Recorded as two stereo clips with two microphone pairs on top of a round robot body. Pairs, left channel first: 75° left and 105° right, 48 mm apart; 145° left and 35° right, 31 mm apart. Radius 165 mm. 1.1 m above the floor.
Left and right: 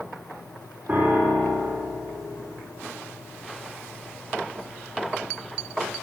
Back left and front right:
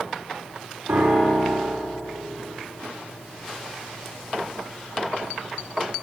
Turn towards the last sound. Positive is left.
turn(degrees=-45)